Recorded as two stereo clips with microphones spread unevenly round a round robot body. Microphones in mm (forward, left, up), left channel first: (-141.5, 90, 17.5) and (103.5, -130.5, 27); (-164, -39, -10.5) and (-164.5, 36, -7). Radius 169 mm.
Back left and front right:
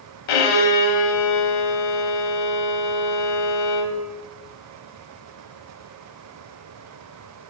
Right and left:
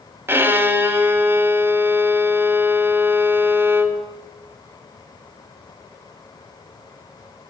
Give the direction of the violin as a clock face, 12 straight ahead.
7 o'clock.